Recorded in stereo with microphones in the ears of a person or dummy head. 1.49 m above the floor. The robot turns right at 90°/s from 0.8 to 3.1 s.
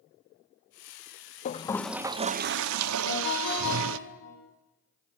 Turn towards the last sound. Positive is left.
turn(degrees=75)  # may be behind; listen again after turning